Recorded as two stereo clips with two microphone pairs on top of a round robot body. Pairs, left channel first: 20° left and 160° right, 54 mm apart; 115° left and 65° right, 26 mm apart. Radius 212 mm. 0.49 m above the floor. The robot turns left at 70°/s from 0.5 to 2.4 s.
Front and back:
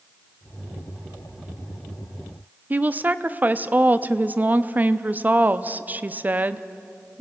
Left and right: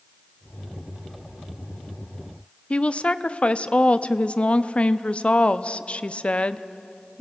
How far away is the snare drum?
No snare drum in this recording.